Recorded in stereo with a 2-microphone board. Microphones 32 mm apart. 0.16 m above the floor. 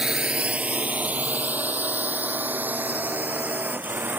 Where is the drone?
25° right (ahead or behind); by 4.2 s 80° right.